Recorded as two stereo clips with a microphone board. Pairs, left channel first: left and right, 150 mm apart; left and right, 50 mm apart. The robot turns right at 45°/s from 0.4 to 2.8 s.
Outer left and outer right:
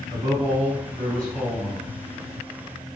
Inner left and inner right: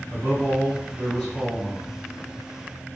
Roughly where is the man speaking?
Ahead right.